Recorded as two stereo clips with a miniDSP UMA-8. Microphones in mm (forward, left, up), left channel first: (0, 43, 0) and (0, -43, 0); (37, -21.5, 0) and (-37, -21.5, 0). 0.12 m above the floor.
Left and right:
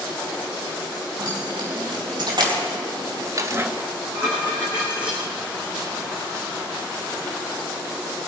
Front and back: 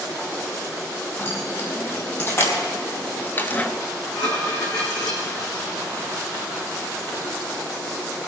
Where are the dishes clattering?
10° right, 4.5 m.